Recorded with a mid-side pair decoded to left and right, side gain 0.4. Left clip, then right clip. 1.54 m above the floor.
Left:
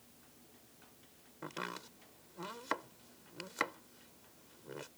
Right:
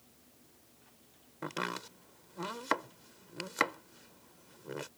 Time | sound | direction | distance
1.4 | chopping | 50° right | ?